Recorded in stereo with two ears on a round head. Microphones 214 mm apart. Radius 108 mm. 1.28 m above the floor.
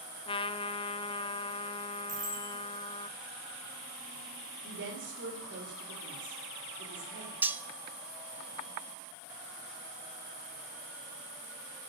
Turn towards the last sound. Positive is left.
turn(degrees=-10)  # may be behind; listen again after turning